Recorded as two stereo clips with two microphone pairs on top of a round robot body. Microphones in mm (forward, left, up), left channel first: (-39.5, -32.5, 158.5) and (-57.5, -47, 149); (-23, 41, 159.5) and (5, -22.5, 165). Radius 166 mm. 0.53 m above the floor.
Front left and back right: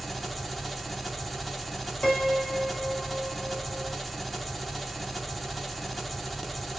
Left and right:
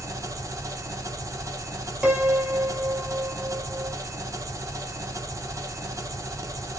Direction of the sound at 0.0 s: 75° right.